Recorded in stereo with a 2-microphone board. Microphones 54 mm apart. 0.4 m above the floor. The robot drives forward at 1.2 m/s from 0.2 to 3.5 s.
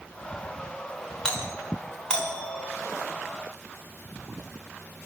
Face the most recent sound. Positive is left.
turn(degrees=20)  # may be behind; listen again after turning